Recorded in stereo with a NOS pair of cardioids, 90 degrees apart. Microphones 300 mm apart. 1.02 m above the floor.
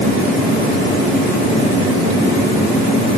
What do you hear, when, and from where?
Only background noise.